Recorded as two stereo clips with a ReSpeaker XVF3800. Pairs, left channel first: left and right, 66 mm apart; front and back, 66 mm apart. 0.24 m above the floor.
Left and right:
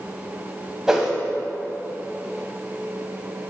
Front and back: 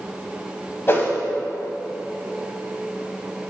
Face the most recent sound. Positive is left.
turn(degrees=-15)